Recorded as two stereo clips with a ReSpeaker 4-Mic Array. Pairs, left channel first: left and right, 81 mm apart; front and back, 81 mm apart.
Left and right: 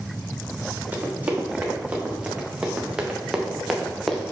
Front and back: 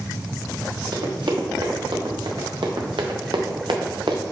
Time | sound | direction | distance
0.9 | running footsteps | 160° right | 3.5 m